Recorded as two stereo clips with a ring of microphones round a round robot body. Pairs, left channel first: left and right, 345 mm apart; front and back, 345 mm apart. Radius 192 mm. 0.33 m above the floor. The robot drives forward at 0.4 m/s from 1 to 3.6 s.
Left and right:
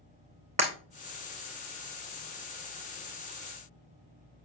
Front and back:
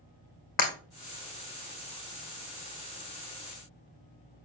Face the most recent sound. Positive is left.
turn(degrees=-30)